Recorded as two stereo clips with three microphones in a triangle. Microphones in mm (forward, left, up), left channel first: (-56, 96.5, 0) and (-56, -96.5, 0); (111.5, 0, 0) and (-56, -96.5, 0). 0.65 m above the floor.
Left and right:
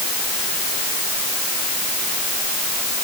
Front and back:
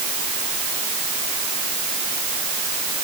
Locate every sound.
Only background noise.